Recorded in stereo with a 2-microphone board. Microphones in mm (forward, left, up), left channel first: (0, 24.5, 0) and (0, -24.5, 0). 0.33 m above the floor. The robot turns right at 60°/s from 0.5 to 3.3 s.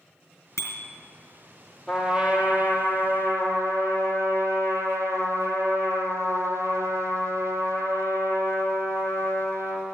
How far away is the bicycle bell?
About 3.5 m.